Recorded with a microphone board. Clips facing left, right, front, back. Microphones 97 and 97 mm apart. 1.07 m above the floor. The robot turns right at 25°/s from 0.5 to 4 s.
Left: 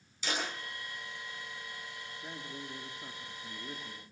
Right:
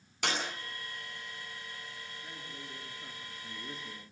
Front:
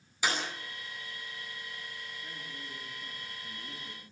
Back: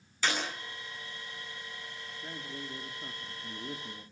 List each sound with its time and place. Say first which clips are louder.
0.2 s a clap: right 2 dB, even; 75° right, 9.5 m
2.2 s a man speaking: left 3 dB, back 3 dB; 140° left, 2 m; by 4.0 s 175° right, 2 m